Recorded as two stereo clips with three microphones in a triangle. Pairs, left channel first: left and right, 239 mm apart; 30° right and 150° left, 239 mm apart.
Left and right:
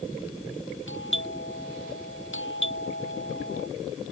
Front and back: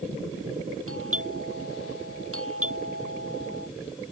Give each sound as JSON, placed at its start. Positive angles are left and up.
{"t": 0.9, "sound": "a doorbell", "azimuth_deg": 125}